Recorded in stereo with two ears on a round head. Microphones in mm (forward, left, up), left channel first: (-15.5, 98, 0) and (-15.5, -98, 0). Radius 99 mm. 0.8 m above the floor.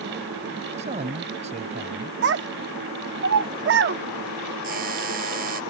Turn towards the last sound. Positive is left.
turn(degrees=-45)  # may be behind; listen again after turning